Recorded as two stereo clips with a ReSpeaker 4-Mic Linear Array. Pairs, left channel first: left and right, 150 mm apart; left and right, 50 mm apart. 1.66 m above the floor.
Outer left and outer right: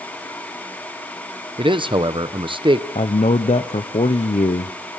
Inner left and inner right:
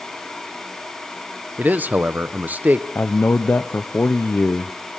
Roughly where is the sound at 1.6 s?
Right.